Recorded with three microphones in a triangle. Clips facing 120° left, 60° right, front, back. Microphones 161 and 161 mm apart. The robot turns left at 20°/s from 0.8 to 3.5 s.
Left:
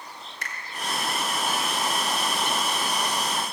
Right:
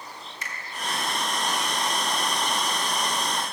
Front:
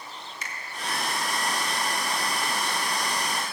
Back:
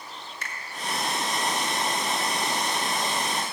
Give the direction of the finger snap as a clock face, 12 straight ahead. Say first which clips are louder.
Left 1 dB, back 1 dB; 7 o'clock.